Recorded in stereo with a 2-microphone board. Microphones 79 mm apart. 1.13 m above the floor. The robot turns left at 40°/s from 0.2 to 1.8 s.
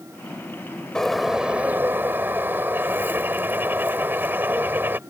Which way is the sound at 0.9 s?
10° left.